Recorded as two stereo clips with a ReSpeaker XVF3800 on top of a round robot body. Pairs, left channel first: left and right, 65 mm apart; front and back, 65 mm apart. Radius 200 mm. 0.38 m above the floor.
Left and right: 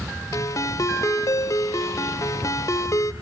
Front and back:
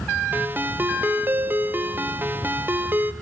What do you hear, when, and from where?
0.3 s a ringtone: 125° left, 1.6 m